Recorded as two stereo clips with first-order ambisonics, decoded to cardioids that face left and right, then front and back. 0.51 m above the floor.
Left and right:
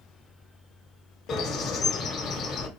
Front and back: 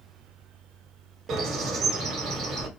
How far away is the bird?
About 1.0 m.